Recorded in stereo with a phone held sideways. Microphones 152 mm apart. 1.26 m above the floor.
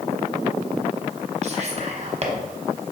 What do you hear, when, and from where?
1.4 s whispering: 45° right (ahead or behind), 0.9 m